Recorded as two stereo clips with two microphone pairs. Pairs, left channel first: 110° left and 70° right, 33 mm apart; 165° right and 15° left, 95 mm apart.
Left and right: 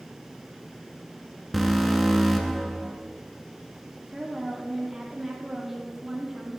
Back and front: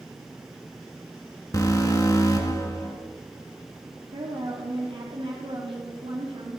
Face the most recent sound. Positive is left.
turn(degrees=15)